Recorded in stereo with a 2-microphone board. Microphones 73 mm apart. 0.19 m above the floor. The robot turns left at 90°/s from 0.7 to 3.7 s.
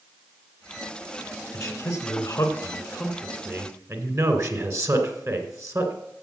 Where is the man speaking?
130° left, 2 m; by 5.9 s 65° right, 2 m.